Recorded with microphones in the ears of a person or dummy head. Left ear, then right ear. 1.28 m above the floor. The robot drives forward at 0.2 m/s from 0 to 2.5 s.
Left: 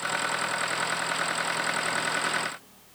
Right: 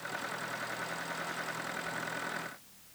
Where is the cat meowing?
I don't hear a cat meowing.